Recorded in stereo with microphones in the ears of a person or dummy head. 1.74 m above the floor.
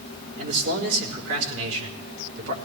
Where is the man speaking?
80° right, 4 m.